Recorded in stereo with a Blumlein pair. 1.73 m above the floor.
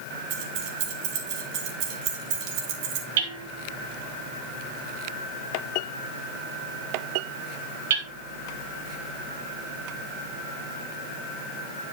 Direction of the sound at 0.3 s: 45° right.